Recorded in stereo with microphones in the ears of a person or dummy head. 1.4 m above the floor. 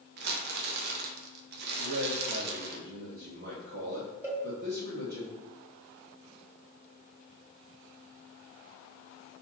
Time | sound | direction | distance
0.2 | crumpling | 60° right (ahead or behind) | 0.9 m
1.8 | a man speaking | 45° right (ahead or behind) | 0.9 m
4.2 | a cowbell | 15° right (ahead or behind) | 1.8 m